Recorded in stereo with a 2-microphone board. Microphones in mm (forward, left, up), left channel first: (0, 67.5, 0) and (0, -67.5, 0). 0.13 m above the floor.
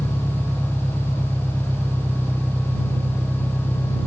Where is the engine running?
5° left (ahead or behind).